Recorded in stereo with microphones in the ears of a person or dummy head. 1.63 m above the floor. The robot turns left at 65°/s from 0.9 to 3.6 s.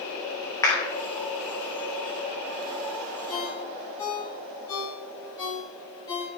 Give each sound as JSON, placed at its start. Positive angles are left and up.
{"t": 0.6, "sound": "a clap", "side_deg": 15, "distance_m": 2.5}
{"t": 3.3, "sound": "a ringtone", "side_deg": 45, "distance_m": 3.5}